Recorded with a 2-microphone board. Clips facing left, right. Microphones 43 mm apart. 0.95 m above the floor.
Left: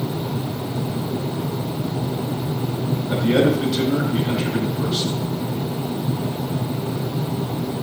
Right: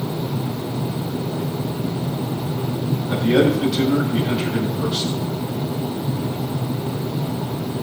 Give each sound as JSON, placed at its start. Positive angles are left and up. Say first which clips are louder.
{"t": 3.1, "sound": "a man speaking", "louder": "right 1 dB", "side_deg": 0, "distance_m": 4.5}